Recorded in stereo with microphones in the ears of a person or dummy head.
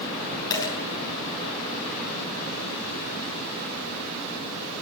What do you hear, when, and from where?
0.5 s a dropped coin: 20° left (ahead or behind), 6 m